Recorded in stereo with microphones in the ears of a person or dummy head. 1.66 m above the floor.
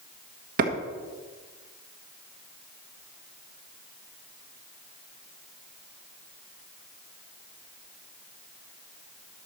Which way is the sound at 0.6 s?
50° right (ahead or behind).